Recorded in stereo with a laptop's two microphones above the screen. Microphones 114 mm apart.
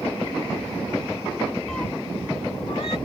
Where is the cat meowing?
5° left (ahead or behind); by 3.0 s 55° left (ahead or behind).